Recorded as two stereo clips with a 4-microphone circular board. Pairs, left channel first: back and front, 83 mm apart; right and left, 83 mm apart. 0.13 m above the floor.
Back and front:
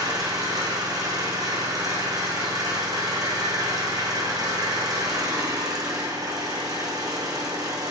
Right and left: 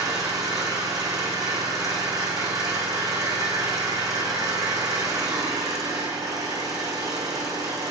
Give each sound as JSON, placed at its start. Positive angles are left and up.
{"t": 0.0, "sound": "an engine running", "azimuth_deg": 45, "distance_m": 4.0}